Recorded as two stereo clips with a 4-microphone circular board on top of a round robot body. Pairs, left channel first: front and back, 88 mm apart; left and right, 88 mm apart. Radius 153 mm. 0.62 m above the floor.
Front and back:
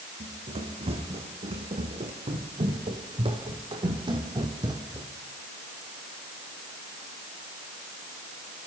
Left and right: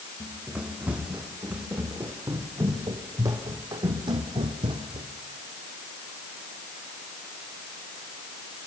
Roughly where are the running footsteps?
Behind.